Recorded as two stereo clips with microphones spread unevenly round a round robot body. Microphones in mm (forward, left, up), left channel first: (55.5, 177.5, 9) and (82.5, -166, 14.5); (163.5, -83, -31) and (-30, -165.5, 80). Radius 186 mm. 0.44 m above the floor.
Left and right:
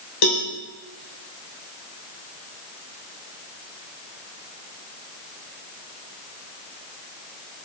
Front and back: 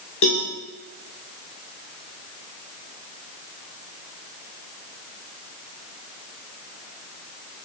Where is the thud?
I don't hear a thud.